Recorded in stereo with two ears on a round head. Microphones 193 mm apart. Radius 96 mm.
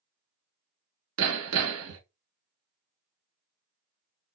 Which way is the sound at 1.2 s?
85° right.